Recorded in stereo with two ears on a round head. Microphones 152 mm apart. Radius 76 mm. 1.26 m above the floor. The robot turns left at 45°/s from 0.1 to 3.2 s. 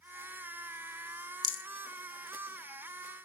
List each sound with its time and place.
1.4 s a rattle: 35° left (ahead or behind), 1.1 m; by 1.6 s 25° left (ahead or behind), 1.1 m